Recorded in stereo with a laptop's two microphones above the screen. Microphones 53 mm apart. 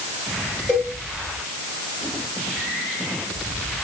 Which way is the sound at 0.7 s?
10° right (ahead or behind).